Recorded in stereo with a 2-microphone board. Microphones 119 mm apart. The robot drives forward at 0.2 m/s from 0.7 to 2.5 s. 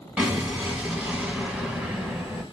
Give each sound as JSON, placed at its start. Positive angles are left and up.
{"t": 0.2, "sound": "an explosion", "side_deg": -10, "distance_m": 0.9}